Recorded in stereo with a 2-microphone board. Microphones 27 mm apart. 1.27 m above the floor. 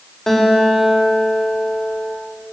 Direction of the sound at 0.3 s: 15° left (ahead or behind).